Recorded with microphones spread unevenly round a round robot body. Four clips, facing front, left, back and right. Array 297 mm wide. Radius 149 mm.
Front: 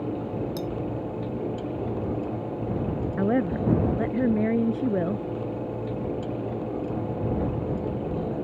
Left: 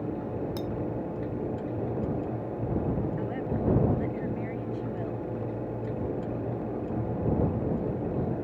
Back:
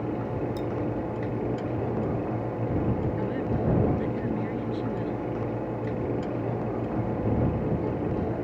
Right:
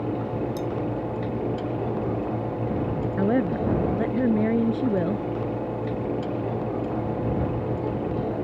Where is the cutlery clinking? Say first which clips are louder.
Right 5 dB, even; 50° left.